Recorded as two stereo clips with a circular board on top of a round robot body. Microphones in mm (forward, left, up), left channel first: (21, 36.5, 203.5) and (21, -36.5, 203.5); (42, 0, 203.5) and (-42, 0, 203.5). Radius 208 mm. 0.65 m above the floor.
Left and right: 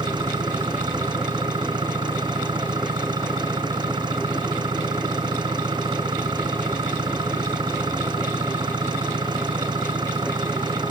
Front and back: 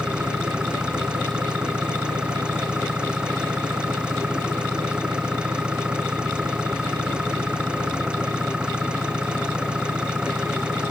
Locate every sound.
0.0 s an engine running: 100° right